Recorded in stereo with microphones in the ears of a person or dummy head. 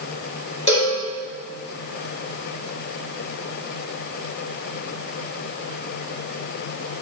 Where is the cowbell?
30° left (ahead or behind), 4 m.